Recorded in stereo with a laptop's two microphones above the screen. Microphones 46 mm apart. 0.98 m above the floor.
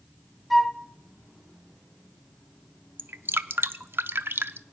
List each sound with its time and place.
0.5 s a flute: centre (ahead or behind), 0.8 m
3.0 s dripping: 50° right (ahead or behind), 0.6 m